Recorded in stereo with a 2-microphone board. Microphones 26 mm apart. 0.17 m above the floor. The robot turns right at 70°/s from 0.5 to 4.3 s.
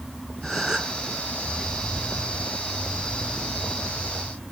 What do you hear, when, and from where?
0.4 s a gasp: 170° right; by 1.0 s 140° right